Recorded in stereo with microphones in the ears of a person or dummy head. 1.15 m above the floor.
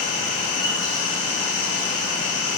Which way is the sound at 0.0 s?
70° left (ahead or behind).